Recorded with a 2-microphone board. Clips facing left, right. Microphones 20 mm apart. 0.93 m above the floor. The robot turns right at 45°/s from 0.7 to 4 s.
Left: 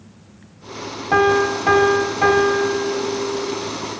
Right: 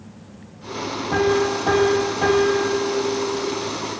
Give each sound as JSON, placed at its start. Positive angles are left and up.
{"t": 1.1, "sound": "a piano", "azimuth_deg": 50, "distance_m": 0.6}